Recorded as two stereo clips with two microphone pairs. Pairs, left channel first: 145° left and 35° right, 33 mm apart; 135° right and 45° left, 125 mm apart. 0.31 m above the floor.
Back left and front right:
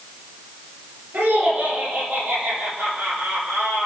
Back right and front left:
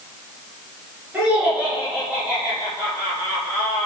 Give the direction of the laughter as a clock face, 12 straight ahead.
1 o'clock.